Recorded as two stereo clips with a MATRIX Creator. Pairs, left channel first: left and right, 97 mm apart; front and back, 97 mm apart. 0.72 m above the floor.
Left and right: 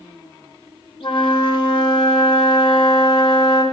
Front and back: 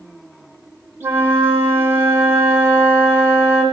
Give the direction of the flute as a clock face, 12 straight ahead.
8 o'clock.